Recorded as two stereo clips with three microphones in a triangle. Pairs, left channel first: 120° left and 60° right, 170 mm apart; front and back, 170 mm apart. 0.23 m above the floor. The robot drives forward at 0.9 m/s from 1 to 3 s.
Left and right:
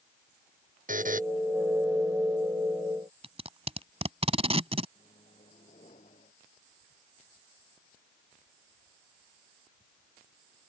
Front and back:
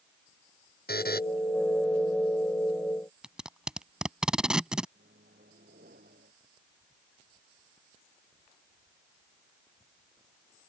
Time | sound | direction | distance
0.9 | a buzzer | 25° right | ?
3.2 | tape being pulled | 95° right | ?
5.0 | a microwave | 165° left | ?